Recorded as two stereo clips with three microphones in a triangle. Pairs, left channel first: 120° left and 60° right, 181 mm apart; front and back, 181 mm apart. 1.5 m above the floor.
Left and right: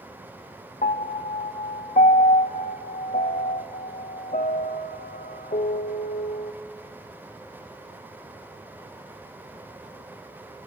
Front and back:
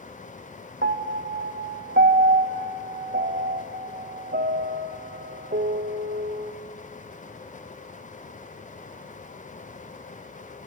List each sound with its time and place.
0.8 s a piano: 165° left, 0.5 m